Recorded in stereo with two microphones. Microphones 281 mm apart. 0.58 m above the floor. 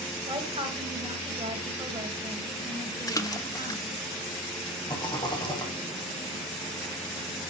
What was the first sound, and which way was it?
A woman speaking, 20° right (ahead or behind).